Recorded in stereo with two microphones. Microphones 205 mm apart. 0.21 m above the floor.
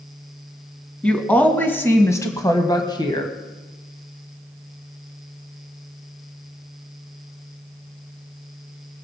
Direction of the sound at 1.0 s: 5° left (ahead or behind).